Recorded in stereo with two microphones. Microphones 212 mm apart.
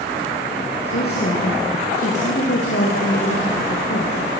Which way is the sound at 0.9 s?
50° left (ahead or behind).